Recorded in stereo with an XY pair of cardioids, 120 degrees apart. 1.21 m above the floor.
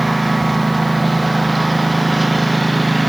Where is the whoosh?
No whoosh in this recording.